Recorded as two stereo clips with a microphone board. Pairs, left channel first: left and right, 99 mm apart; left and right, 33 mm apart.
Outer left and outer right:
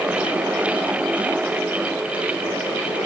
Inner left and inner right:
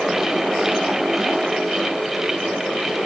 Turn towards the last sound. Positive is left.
No sound to turn to.